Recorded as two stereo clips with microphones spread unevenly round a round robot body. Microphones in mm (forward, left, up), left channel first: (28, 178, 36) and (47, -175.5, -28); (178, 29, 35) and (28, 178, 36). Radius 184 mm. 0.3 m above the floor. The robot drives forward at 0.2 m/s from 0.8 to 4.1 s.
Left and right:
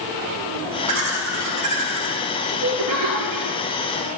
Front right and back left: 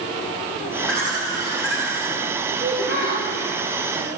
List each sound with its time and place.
0.9 s laughter: 130° right, 5.5 m; by 3.6 s 135° right, 6 m
2.6 s a child speaking: 155° right, 5 m